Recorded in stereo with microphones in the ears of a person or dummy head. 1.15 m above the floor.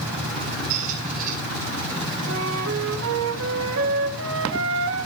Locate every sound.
0.7 s a squeak: 40° right (ahead or behind), 4.5 m
2.3 s a flute: 65° right (ahead or behind), 1.1 m